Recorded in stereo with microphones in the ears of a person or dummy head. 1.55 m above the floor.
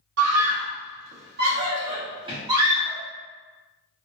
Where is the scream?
85° right, 1.0 m; by 3.0 s 15° right (ahead or behind), 1.4 m.